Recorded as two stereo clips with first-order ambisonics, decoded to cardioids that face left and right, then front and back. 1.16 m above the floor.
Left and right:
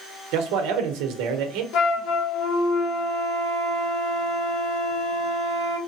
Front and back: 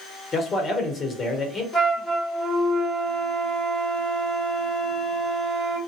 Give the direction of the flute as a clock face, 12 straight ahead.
10 o'clock.